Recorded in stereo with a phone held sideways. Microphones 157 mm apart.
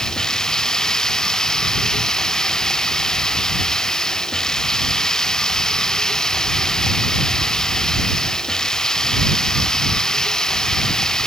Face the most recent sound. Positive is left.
turn(degrees=5)  # may be behind; listen again after turning